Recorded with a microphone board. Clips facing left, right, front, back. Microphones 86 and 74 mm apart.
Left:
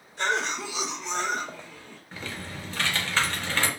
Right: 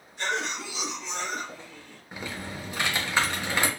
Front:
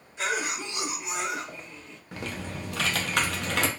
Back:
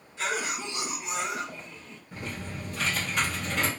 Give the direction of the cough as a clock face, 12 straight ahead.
10 o'clock.